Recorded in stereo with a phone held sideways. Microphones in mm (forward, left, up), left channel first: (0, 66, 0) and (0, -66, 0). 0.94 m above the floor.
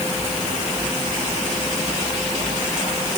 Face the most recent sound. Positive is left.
No sound to turn to.